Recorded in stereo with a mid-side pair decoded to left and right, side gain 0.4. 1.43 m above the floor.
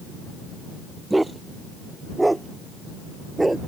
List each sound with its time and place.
1.1 s a dog barking: 15° right